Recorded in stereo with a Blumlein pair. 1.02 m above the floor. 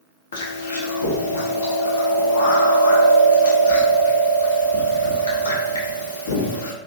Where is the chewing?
65° left, 0.8 m.